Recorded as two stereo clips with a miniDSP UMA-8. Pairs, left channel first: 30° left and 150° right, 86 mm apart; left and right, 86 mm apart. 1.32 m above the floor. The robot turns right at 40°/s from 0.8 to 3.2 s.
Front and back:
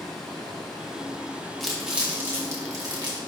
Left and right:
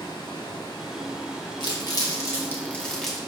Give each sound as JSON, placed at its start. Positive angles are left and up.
{"t": 0.0, "sound": "running water", "azimuth_deg": 115, "distance_m": 3.0}
{"t": 1.6, "sound": "crumpling", "azimuth_deg": 115, "distance_m": 1.6}